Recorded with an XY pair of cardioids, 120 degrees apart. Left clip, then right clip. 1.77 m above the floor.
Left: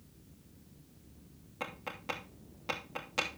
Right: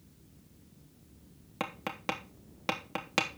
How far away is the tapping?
About 3 m.